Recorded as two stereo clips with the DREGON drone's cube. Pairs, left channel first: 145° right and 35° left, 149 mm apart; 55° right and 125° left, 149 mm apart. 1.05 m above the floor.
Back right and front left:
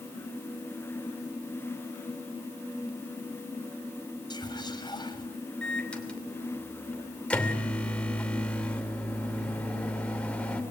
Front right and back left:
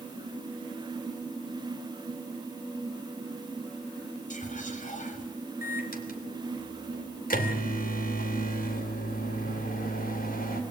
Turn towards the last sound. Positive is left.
turn(degrees=-65)